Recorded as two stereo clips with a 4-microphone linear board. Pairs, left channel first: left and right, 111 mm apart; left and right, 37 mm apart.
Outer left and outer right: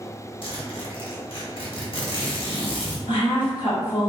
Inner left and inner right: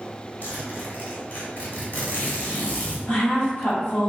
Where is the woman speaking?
50° left (ahead or behind), 1.2 m.